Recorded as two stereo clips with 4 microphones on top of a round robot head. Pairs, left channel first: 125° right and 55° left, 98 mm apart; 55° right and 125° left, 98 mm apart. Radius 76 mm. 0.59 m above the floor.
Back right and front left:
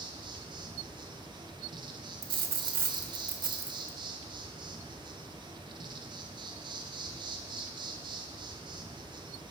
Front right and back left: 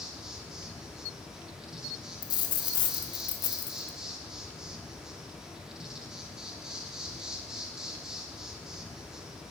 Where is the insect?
45° left, 1.1 m.